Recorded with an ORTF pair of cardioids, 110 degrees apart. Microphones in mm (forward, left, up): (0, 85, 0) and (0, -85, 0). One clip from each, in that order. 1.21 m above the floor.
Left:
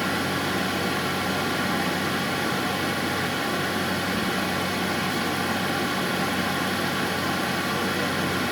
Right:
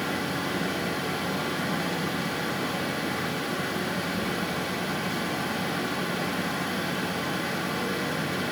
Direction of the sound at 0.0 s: 30° left.